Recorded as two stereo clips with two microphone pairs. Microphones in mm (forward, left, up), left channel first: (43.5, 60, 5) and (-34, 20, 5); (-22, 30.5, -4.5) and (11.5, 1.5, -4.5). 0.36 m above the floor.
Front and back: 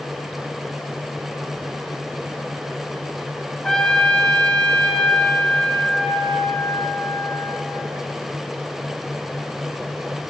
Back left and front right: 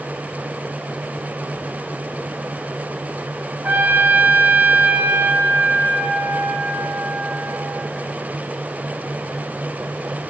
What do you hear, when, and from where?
3.6 s a trumpet: 45° right, 0.7 m